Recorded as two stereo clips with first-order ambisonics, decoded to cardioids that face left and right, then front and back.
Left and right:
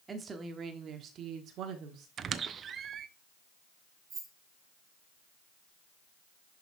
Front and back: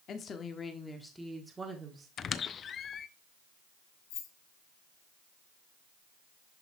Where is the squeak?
45° right, 0.6 m.